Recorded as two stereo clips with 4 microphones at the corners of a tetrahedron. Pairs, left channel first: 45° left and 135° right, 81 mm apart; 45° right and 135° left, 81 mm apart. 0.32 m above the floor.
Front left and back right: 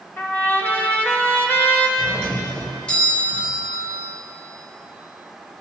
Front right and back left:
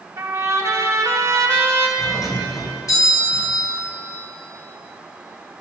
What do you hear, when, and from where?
0.2 s a trumpet: 100° left, 1.8 m
2.0 s a doorbell: 30° right, 3 m